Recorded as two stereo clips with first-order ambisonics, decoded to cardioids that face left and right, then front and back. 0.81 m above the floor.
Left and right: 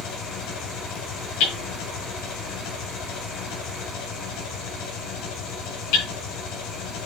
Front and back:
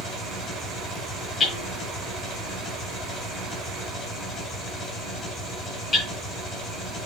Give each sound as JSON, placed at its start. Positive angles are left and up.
{"t": 0.0, "sound": "an engine running", "azimuth_deg": 60, "distance_m": 2.5}
{"t": 1.4, "sound": "hammering", "azimuth_deg": 75, "distance_m": 4.5}